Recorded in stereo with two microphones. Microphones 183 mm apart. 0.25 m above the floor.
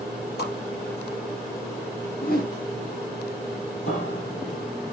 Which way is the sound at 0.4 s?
65° left (ahead or behind).